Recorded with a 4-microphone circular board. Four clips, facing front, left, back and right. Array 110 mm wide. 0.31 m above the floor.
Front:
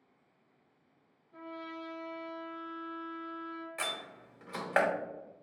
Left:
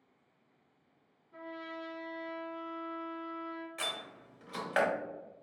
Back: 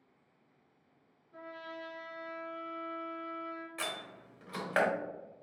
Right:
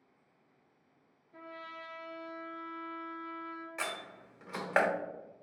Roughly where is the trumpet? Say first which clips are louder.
Left 3 dB, front 2 dB; left.